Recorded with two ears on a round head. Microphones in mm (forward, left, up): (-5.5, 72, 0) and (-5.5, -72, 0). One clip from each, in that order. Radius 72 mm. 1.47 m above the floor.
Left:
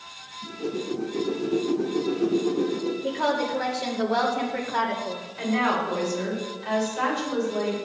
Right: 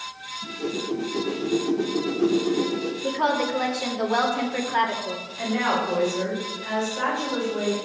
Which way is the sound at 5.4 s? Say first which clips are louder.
Even; 20° left (ahead or behind).